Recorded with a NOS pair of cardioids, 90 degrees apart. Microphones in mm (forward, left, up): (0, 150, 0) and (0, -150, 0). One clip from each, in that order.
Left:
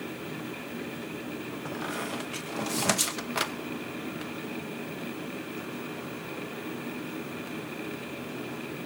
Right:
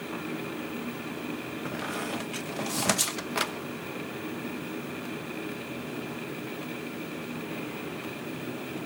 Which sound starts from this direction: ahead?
A squeak, at 1.6 s.